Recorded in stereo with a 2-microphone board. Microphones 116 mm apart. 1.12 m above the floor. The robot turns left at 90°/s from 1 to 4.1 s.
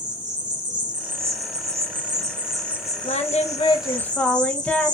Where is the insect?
40° right, 1.2 m; by 4.9 s 40° left, 1.2 m.